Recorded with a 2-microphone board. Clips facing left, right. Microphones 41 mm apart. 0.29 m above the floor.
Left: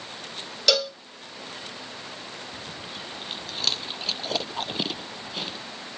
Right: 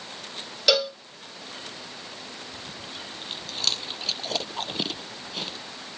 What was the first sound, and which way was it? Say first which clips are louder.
A cowbell: right 1 dB; 10° right (ahead or behind).